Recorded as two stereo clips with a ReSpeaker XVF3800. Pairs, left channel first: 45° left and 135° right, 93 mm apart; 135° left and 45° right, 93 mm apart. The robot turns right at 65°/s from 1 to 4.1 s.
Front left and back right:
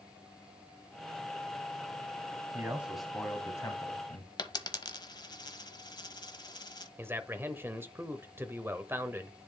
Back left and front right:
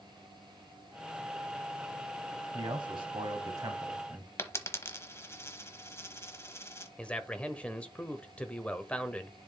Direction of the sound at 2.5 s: 75° right.